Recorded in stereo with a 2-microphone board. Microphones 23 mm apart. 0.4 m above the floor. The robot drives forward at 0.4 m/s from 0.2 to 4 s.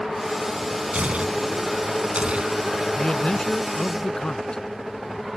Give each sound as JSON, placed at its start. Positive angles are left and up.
{"t": 0.9, "sound": "tearing paper", "side_deg": -65}
{"t": 3.0, "sound": "a man speaking", "side_deg": 50}